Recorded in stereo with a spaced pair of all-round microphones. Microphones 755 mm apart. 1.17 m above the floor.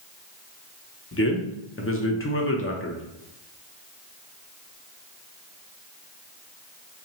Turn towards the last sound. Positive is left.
turn(degrees=20)  # may be behind; listen again after turning